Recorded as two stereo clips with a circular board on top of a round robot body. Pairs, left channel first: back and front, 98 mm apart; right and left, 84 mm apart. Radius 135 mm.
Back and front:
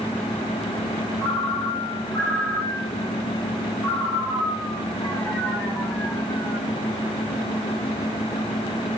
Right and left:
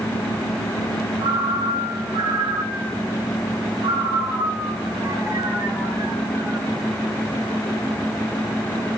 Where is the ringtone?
85° left, 4 m.